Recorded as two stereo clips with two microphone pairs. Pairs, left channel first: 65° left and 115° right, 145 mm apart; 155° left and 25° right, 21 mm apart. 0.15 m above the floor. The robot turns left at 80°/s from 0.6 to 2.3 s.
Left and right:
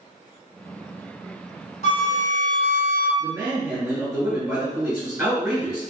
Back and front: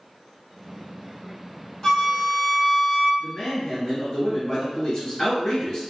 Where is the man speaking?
175° right, 1.8 m.